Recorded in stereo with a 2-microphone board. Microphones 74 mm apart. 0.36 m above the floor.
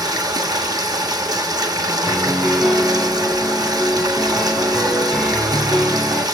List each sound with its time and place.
0.0 s running water: 60° right (ahead or behind), 1.5 m
2.1 s a piano: 5° right (ahead or behind), 2.5 m